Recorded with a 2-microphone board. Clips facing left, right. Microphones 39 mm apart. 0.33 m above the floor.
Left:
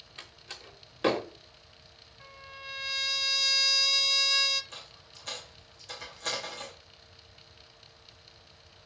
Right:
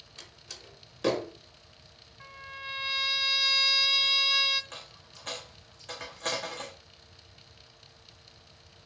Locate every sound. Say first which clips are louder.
0.2 s a door slam: left 3 dB; 25° left (ahead or behind), 1.1 m
2.2 s a trumpet: right 4 dB; 15° right (ahead or behind), 0.7 m
4.7 s a dropped coin: right 1 dB; 45° right (ahead or behind), 3 m